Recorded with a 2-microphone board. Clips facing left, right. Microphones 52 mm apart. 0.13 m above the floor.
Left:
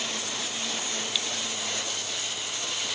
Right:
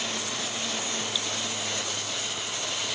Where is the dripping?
60° left (ahead or behind).